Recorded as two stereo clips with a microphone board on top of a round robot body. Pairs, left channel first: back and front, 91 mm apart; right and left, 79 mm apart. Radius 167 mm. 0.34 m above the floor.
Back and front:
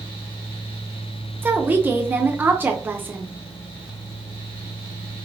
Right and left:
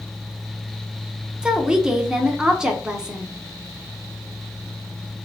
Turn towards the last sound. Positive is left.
turn(degrees=25)